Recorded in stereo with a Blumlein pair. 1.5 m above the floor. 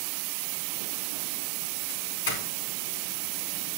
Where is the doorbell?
50° left, 5 m.